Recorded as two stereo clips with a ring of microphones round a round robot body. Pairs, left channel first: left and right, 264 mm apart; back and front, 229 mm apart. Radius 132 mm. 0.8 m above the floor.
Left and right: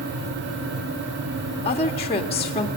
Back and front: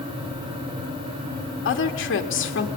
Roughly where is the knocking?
No knocking in this recording.